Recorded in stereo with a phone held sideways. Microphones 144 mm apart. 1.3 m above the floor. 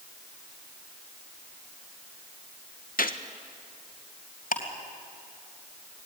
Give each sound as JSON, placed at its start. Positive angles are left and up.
{"t": 3.0, "sound": "a gunshot", "side_deg": 75, "distance_m": 1.1}
{"t": 4.5, "sound": "ticking", "side_deg": 75, "distance_m": 3.0}